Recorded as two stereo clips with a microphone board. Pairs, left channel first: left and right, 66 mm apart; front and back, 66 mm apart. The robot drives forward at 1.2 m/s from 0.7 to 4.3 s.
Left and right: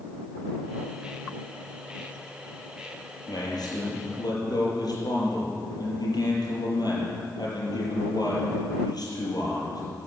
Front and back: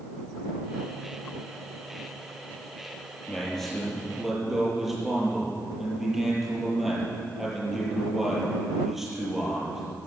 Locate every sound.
3.3 s a man speaking: 80° left, 6.5 m; by 9.8 s 90° left, 6.5 m